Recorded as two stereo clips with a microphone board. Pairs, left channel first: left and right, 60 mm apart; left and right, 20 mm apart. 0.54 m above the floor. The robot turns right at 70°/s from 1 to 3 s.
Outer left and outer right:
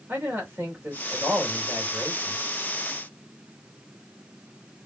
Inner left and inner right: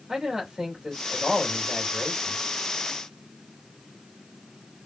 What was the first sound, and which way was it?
A man speaking, 130° right.